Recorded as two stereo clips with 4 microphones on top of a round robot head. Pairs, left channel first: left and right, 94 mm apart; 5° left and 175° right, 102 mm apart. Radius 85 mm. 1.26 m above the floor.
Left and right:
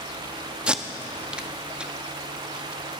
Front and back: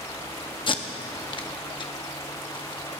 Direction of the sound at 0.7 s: 10° right.